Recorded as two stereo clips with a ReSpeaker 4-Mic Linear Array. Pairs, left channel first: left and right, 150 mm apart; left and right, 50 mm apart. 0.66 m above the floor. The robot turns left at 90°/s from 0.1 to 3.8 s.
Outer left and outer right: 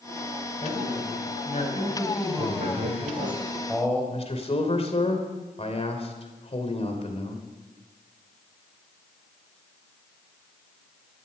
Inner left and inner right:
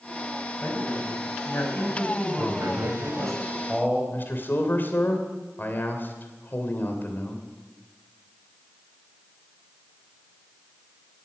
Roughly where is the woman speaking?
Behind left.